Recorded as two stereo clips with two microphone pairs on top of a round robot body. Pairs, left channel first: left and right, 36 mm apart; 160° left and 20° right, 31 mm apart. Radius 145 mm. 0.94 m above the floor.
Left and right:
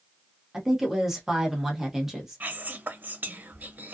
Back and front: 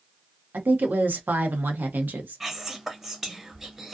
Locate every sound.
0.5 s a woman speaking: 10° right, 0.8 m
2.4 s whispering: 95° right, 1.0 m